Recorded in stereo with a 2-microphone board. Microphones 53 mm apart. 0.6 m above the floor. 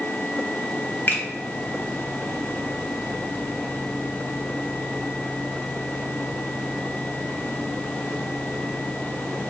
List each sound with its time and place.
1.1 s a finger snap: 40° left (ahead or behind), 1.0 m